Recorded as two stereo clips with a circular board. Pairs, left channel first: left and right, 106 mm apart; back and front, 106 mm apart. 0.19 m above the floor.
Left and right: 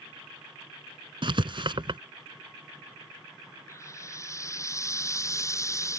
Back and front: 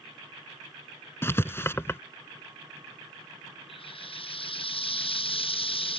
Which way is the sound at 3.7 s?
150° left.